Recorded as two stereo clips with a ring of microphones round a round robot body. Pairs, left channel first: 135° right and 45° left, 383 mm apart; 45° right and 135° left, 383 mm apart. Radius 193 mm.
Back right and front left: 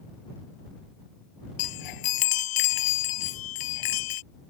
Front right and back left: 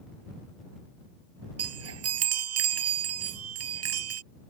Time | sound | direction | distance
1.6 | a chime | 170° right | ?